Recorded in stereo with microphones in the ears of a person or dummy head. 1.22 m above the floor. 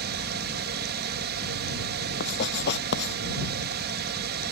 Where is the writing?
50° left (ahead or behind).